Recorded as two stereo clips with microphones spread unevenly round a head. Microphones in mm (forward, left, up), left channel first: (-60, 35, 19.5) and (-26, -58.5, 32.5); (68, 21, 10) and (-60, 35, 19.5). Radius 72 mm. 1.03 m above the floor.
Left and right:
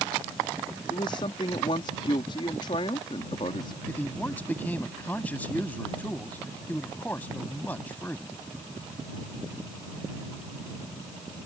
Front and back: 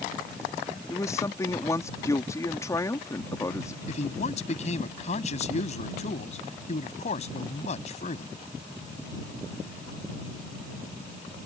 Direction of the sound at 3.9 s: 30° left.